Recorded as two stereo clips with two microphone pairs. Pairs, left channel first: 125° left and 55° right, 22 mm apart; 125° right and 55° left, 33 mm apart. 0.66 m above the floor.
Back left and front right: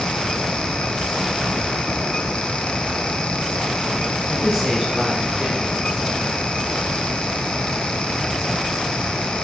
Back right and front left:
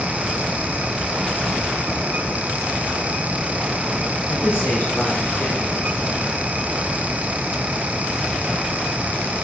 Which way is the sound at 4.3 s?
115° right.